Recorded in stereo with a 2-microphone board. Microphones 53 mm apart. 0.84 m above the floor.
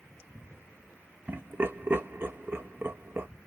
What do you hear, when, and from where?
1.3 s laughter: 40° right (ahead or behind), 1.1 m